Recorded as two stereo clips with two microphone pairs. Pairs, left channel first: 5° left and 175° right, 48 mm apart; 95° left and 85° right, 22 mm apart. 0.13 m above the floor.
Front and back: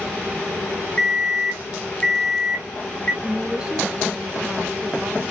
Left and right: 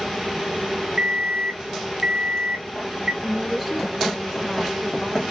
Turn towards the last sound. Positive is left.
turn(degrees=-150)